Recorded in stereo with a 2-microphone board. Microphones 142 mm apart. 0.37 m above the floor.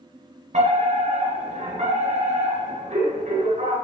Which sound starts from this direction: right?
A fire alarm, at 0.5 s.